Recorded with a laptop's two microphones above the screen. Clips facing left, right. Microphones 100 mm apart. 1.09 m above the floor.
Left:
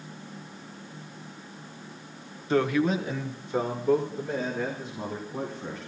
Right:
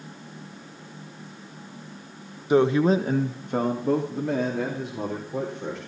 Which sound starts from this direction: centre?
A man speaking, at 2.5 s.